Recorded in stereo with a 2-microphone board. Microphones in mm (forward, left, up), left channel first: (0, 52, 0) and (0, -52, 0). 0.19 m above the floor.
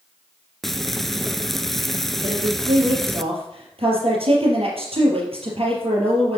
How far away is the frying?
About 0.6 m.